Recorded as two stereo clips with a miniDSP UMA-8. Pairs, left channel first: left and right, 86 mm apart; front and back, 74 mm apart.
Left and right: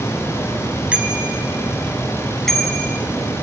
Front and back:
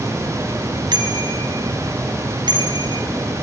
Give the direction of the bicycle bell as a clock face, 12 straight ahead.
6 o'clock.